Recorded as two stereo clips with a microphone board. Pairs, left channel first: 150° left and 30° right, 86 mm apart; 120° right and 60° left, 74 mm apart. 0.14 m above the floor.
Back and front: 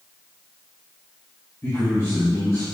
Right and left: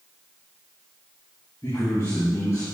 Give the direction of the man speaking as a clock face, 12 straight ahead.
5 o'clock.